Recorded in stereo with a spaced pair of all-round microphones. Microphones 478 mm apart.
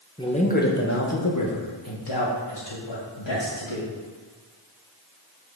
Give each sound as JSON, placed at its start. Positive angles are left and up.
{"t": 0.2, "sound": "a man speaking", "side_deg": 10, "distance_m": 1.1}